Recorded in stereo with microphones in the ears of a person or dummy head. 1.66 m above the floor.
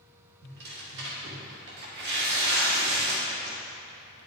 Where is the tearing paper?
55° right (ahead or behind), 1.6 m.